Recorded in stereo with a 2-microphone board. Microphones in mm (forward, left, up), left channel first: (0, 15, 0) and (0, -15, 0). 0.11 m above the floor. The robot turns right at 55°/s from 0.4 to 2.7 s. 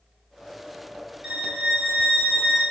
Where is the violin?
50° right, 1.4 m; by 2.6 s 25° left, 1.4 m.